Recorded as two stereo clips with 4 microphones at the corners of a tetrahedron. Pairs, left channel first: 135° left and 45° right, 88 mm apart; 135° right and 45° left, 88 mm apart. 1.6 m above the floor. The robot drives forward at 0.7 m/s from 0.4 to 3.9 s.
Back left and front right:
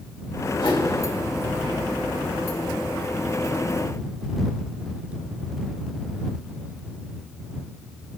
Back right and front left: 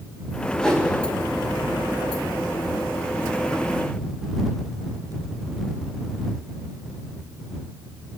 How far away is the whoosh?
About 3 m.